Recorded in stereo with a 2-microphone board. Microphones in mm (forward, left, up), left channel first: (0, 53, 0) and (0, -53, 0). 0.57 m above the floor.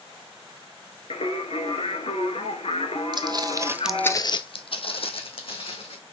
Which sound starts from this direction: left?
Singing, at 1.1 s.